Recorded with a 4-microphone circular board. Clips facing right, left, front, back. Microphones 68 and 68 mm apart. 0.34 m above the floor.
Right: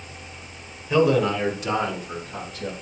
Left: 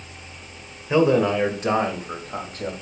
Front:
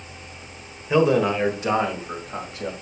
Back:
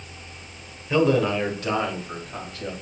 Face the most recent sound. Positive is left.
turn(degrees=65)